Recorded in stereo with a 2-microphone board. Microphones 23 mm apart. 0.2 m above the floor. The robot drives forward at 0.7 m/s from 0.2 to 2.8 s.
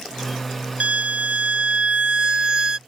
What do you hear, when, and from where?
0.8 s a violin: 70° right (ahead or behind); by 2.8 s 35° right (ahead or behind)